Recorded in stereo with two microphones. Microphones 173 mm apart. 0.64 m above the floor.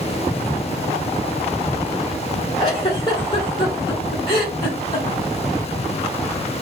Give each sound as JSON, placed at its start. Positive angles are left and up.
{"t": 2.6, "sound": "a giggle", "side_deg": 30, "distance_m": 1.2}